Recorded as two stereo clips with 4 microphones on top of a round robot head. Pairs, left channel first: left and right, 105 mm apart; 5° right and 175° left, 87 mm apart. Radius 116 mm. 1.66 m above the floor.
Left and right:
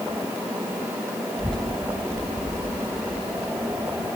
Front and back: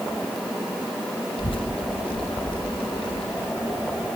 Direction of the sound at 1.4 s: 5° left.